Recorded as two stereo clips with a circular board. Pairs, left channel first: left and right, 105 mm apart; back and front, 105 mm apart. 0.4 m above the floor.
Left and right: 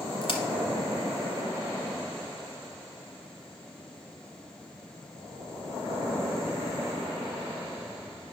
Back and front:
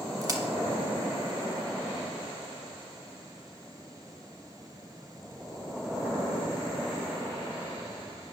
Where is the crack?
55° left, 0.9 m.